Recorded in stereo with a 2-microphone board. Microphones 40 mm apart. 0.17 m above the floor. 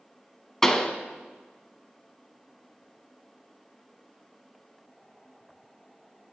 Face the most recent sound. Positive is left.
turn(degrees=15)  # may be behind; listen again after turning